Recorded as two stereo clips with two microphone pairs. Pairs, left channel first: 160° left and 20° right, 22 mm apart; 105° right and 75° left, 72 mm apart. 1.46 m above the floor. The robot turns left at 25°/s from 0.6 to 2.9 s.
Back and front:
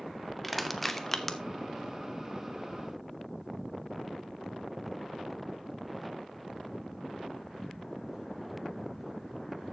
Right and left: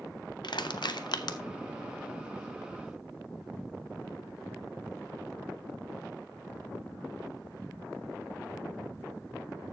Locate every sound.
0.4 s crushing: 110° right, 0.8 m; by 1.4 s 130° right, 0.8 m